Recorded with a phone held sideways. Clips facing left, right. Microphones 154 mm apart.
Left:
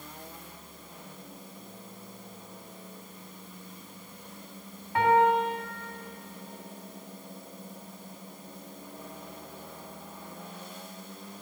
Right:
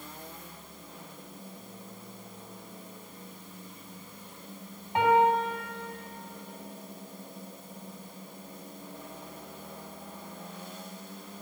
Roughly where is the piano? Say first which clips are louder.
Even; right.